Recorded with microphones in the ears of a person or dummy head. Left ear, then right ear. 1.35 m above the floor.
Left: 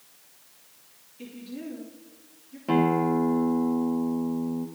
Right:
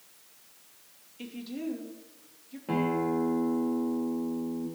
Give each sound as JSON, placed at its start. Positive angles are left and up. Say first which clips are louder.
{"t": 1.2, "sound": "a woman speaking", "louder": "right 2 dB", "side_deg": -25, "distance_m": 2.5}
{"t": 2.7, "sound": "a guitar", "louder": "left 6 dB", "side_deg": 80, "distance_m": 1.5}